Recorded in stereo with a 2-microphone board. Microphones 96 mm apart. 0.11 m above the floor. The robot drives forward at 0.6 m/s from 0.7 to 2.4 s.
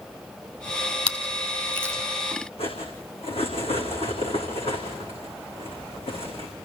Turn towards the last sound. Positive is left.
turn(degrees=80)